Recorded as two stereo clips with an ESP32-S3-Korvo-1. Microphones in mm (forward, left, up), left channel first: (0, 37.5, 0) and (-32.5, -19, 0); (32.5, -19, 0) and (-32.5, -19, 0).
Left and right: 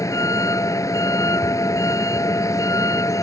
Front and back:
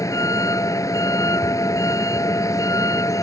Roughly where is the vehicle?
Ahead left.